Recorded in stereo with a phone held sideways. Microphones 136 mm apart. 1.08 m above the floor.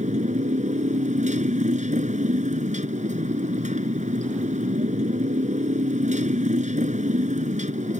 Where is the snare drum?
I don't hear a snare drum.